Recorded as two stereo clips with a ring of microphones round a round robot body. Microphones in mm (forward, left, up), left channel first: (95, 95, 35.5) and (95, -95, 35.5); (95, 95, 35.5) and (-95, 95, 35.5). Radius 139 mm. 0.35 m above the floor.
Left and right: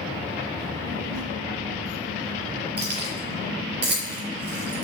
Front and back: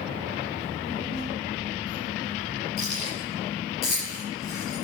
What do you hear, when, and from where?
0.6 s a child speaking: 80° right, 2.5 m
2.8 s keys jangling: 60° right, 5 m